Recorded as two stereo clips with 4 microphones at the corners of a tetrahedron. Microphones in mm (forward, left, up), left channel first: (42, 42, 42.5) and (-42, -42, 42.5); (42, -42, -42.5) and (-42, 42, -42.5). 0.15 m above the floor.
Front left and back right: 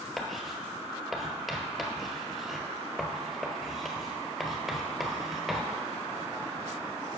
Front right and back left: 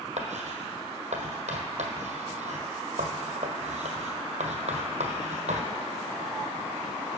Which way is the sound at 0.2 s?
135° left.